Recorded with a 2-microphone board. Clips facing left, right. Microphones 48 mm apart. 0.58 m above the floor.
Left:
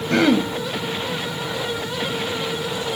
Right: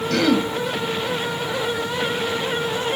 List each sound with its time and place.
0.1 s throat clearing: 25° left (ahead or behind), 2 m